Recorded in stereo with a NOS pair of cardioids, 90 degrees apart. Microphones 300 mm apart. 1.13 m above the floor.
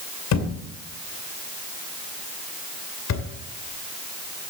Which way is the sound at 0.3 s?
65° left.